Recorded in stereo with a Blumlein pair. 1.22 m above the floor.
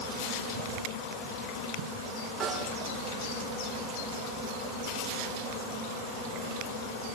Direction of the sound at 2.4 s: 10° right.